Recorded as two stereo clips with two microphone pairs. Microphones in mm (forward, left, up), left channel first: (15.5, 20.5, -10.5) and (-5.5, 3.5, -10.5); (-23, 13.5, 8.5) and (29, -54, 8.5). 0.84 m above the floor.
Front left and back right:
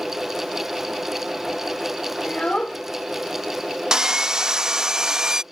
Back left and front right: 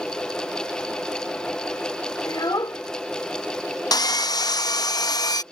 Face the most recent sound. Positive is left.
turn(degrees=160)